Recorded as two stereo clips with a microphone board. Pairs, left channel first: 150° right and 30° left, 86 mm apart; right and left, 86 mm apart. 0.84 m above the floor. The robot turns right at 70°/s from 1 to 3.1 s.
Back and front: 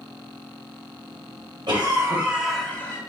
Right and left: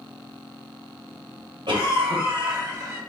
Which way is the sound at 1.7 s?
60° left.